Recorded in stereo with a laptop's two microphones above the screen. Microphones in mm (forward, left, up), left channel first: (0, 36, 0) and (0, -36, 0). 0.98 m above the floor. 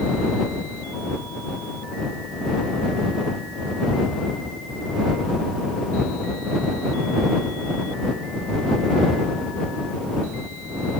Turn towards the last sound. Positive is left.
No sound to turn to.